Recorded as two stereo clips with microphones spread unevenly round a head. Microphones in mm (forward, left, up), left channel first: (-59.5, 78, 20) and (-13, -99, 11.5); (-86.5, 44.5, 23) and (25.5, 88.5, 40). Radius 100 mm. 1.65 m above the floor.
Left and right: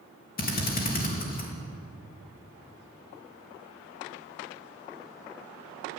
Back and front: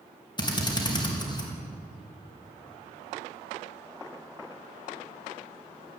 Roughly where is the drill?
Behind left.